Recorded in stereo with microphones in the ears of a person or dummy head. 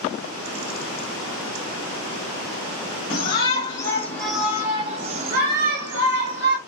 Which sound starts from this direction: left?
A shout, at 3.1 s.